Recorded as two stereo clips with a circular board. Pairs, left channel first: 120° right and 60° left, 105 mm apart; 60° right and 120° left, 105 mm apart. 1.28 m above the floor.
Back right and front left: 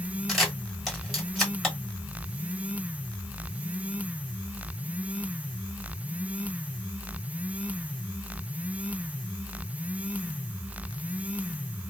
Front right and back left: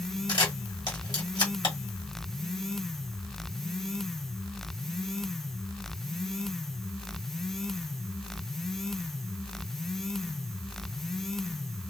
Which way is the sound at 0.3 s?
30° right.